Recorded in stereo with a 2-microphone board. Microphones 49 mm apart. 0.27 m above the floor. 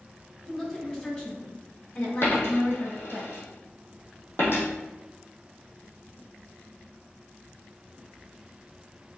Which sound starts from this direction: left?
A dropped coin, at 2.2 s.